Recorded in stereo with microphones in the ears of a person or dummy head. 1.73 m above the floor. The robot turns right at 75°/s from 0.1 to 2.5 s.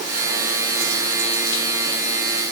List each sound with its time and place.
Only background noise.